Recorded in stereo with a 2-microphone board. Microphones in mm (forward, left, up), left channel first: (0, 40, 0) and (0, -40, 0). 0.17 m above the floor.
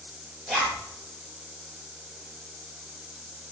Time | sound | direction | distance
0.5 | a zipper | 10° right (ahead or behind) | 2.0 m